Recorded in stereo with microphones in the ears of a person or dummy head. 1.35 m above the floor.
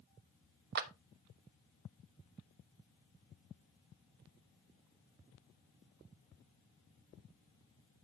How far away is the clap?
About 1.0 m.